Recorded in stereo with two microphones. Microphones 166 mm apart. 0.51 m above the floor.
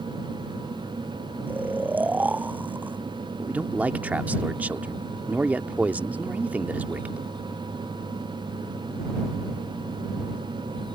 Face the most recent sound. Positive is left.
turn(degrees=-10)  # may be behind; listen again after turning